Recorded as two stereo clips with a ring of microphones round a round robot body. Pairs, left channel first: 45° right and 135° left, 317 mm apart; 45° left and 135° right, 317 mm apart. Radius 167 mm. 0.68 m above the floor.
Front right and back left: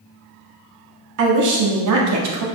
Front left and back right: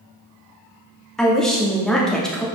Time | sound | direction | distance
1.2 | a woman speaking | 135° left | 1.6 m